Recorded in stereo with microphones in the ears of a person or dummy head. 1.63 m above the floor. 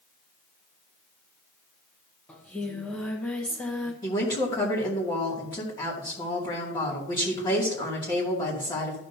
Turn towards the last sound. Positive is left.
turn(degrees=25)  # may be behind; listen again after turning